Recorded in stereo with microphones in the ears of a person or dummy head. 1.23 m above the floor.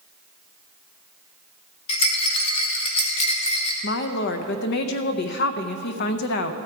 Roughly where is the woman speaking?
Left.